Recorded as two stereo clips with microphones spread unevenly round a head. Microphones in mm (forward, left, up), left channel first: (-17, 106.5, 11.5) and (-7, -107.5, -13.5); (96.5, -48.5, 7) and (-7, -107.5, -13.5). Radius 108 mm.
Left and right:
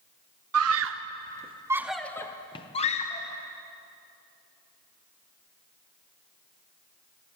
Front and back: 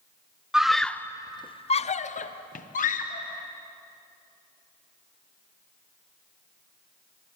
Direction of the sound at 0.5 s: 65° right.